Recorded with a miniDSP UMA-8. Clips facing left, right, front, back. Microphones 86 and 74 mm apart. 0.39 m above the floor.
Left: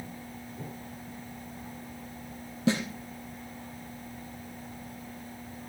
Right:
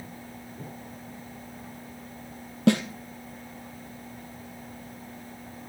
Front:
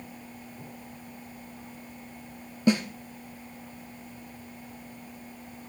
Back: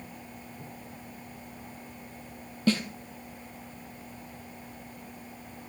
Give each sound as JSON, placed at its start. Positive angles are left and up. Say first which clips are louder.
{"t": 2.7, "sound": "a snare drum", "louder": "right 6 dB, front 3 dB", "azimuth_deg": -75, "distance_m": 2.5}